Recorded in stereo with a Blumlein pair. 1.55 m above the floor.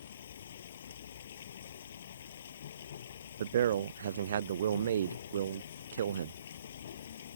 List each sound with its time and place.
0.0 s running water: 65° left
3.4 s a man speaking: 65° right